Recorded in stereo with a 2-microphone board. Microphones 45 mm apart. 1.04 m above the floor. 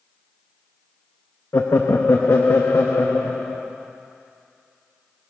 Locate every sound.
1.5 s laughter: 70° left (ahead or behind), 0.8 m